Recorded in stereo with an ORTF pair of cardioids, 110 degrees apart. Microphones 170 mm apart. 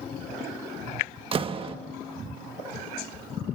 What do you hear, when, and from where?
1.3 s a door slam: 30° right, 1.4 m